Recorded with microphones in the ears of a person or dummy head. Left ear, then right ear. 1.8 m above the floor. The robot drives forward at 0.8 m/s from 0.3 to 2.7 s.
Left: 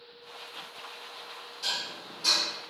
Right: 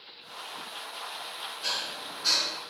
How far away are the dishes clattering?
About 2 m.